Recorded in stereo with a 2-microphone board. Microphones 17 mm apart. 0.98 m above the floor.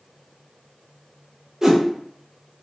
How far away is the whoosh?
About 0.6 m.